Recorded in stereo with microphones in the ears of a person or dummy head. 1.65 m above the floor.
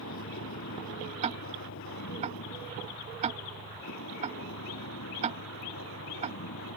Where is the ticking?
40° right (ahead or behind).